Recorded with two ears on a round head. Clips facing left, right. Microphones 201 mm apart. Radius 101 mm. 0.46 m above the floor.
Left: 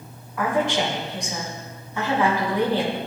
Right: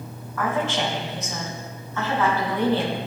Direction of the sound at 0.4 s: 15° left (ahead or behind).